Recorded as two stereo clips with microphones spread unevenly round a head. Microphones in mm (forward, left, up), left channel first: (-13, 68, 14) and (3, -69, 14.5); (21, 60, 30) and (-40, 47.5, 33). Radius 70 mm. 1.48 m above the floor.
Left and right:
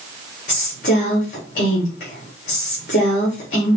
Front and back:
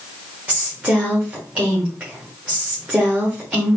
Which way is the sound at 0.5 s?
125° left.